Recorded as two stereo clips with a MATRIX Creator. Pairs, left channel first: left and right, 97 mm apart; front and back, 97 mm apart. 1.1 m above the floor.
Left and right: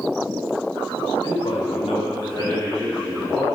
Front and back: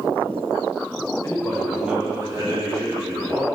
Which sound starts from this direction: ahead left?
A man speaking, at 1.2 s.